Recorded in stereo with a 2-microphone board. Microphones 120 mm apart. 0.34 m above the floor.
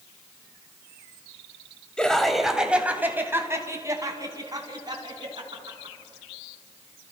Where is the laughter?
5° left (ahead or behind), 2 m; by 6.0 s 40° right (ahead or behind), 5 m.